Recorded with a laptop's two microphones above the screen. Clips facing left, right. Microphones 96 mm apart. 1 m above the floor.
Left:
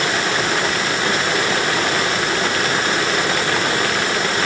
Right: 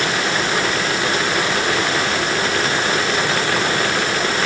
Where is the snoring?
No snoring in this recording.